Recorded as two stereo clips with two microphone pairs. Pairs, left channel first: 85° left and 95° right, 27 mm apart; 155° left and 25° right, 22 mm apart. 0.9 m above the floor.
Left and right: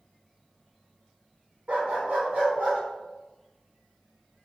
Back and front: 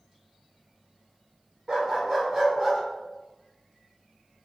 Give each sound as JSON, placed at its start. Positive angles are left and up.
{"t": 1.7, "sound": "a dog barking", "azimuth_deg": -75, "distance_m": 1.1}